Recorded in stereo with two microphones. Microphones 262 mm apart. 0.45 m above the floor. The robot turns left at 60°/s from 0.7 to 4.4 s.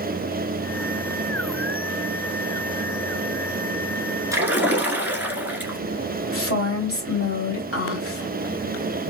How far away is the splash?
About 1.1 m.